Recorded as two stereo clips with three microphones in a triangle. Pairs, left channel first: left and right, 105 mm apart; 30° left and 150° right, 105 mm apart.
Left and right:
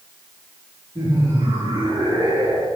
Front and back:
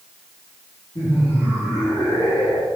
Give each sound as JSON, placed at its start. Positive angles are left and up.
{"t": 0.9, "sound": "laughter", "azimuth_deg": -30, "distance_m": 7.0}